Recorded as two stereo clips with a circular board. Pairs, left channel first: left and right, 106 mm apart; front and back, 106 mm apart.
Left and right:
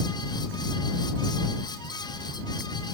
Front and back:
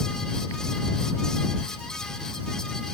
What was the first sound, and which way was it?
Only background noise.